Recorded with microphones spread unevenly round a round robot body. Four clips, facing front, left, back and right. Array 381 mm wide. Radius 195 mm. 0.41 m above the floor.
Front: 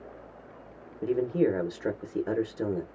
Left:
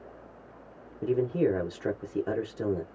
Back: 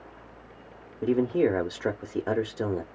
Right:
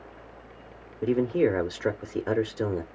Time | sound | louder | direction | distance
1.0 | a man speaking | right 3 dB, back 2 dB | 105° right | 0.8 m